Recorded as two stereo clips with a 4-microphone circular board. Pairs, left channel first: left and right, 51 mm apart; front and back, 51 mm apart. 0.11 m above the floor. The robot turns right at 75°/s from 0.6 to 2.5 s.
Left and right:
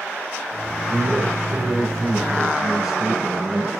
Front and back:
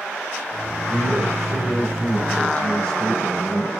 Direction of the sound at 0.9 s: 150° right.